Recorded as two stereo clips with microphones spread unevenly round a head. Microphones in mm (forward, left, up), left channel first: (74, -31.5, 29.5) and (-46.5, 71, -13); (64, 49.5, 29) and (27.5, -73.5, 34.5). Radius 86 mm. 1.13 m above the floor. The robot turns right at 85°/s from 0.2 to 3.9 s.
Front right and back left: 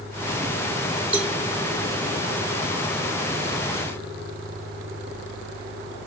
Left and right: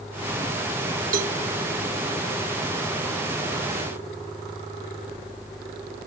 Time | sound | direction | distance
1.1 | a cowbell | 140° right | ?